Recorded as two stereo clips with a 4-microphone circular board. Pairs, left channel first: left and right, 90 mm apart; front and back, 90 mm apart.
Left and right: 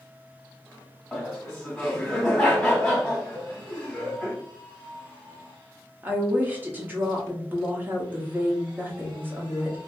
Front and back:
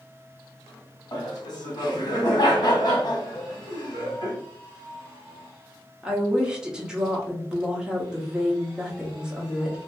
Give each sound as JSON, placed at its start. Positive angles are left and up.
{"t": 1.1, "sound": "laughter", "azimuth_deg": 10, "distance_m": 1.1}
{"t": 3.4, "sound": "a cowbell", "azimuth_deg": -60, "distance_m": 0.7}
{"t": 6.0, "sound": "a woman speaking", "azimuth_deg": -115, "distance_m": 0.8}